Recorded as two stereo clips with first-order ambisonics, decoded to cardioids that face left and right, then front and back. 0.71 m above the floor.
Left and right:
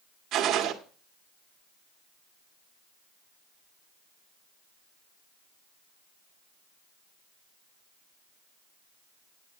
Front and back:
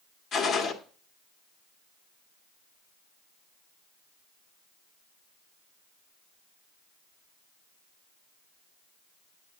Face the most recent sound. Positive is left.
turn(degrees=-50)